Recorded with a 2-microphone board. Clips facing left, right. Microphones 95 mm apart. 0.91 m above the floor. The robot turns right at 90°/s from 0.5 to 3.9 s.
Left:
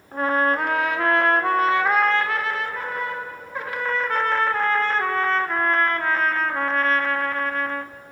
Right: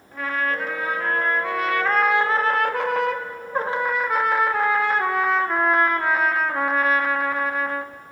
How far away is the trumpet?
About 0.6 m.